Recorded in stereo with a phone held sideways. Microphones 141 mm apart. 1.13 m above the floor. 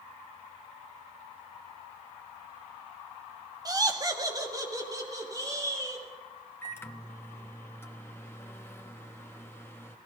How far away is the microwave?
About 0.9 m.